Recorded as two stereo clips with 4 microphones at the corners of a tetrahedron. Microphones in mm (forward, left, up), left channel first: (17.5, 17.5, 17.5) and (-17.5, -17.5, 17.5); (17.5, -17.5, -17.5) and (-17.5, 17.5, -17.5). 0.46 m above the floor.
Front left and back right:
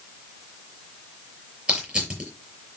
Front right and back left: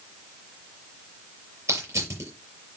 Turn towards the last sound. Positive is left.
turn(degrees=165)